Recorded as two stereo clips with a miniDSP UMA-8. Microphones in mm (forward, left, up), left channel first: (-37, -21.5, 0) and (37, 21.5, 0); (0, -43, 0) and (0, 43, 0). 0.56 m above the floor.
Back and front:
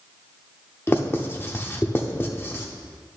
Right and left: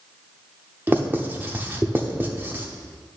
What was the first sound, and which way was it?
Writing, 150° left.